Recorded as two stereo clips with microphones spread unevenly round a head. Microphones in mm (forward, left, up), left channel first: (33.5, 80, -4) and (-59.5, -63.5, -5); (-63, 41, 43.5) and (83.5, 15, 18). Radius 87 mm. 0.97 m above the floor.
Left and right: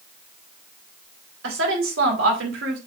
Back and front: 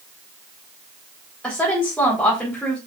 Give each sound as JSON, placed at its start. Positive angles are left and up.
{"t": 1.4, "sound": "a woman speaking", "azimuth_deg": -105, "distance_m": 4.0}